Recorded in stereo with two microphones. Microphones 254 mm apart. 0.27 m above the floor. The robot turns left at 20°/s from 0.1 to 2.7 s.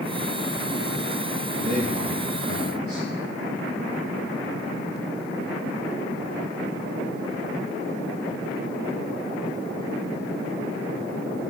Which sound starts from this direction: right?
A man speaking, at 1.6 s.